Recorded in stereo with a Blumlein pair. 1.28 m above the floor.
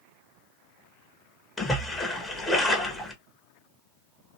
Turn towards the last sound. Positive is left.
turn(degrees=10)